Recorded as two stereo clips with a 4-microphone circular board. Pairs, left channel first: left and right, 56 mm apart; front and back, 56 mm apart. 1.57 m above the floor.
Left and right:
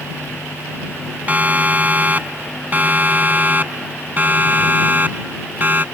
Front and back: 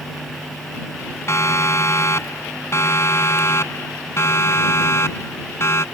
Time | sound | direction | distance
1.3 | a siren | 30° right | ?